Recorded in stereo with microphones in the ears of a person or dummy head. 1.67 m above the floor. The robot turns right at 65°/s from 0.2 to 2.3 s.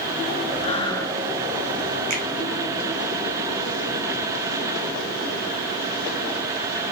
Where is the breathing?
140° left, 0.8 m; by 1.2 s straight behind, 0.8 m.